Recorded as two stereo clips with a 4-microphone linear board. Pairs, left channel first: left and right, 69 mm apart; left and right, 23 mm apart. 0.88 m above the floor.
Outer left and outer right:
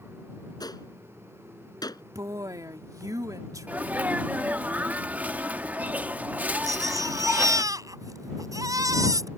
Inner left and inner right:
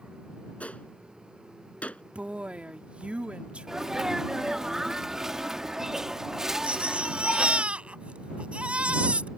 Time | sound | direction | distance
0.6 | a gunshot | 75° left (ahead or behind) | ?
2.1 | a woman speaking | 60° right (ahead or behind) | ?
3.7 | a sneeze | 25° right (ahead or behind) | ?
6.6 | a baby crying | 60° right (ahead or behind) | ?